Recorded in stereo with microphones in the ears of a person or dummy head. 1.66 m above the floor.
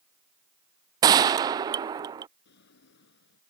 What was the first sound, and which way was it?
A gunshot, 25° right (ahead or behind).